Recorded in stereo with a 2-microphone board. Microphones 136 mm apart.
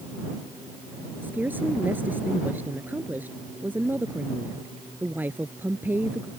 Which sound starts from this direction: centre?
A woman speaking, at 1.2 s.